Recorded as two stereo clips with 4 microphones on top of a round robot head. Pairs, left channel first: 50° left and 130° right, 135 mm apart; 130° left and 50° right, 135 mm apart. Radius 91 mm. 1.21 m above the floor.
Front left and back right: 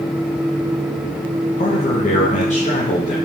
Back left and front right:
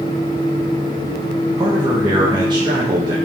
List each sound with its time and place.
1.6 s a man speaking: 10° left, 1.1 m